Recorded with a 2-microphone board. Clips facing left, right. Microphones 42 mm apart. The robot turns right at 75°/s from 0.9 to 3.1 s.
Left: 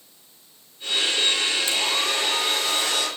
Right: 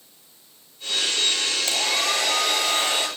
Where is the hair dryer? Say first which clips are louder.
Even; 125° right, 9 m; by 3.1 s 20° right, 9 m.